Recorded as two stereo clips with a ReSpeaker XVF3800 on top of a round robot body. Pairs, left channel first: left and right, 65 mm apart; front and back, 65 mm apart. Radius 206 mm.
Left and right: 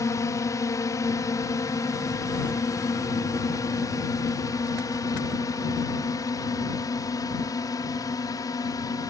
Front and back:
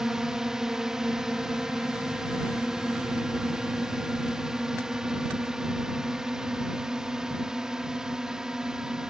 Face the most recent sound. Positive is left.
turn(degrees=100)